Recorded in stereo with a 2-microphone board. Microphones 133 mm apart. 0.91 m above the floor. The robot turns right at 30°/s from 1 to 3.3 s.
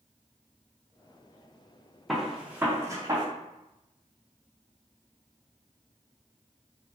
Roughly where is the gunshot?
Centre.